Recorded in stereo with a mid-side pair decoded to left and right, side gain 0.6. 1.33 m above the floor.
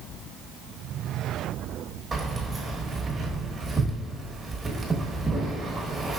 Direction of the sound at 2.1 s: 20° right.